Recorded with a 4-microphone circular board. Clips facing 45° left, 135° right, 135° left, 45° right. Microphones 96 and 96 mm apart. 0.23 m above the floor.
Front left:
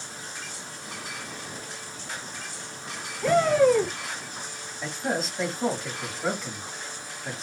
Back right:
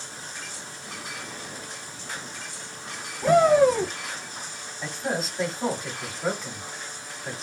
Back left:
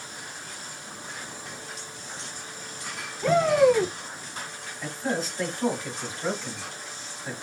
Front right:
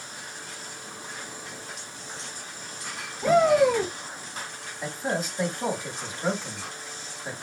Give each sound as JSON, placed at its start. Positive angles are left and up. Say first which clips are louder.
{"t": 3.2, "sound": "a shout", "louder": "back right 2 dB, even", "azimuth_deg": -100, "distance_m": 1.4}
{"t": 4.8, "sound": "a man speaking", "louder": "even, even", "azimuth_deg": -50, "distance_m": 1.3}